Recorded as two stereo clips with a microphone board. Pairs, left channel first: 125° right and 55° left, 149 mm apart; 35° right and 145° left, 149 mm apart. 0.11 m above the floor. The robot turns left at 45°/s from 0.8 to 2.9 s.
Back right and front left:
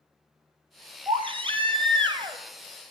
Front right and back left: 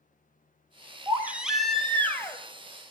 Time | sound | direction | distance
1.1 | a baby crying | 80° left | 0.9 m